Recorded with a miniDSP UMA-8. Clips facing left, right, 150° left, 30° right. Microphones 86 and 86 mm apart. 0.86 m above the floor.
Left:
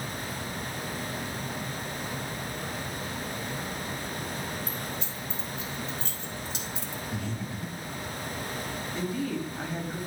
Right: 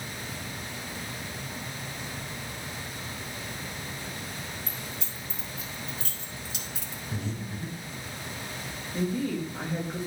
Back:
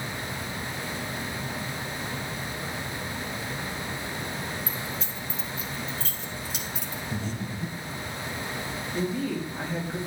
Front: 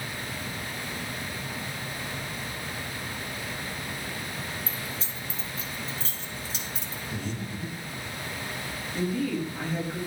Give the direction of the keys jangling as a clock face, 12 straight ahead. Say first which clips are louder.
Left 4 dB, back 2 dB; 3 o'clock.